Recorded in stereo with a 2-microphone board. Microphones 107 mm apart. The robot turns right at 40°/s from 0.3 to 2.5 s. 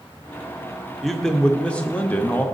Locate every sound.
1.0 s a man speaking: centre (ahead or behind), 0.6 m; by 2.5 s 15° left (ahead or behind), 0.6 m